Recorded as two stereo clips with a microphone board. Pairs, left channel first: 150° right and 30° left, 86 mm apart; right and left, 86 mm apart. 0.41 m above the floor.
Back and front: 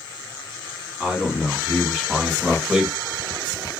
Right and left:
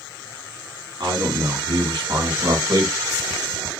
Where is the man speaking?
105° left, 3.5 m.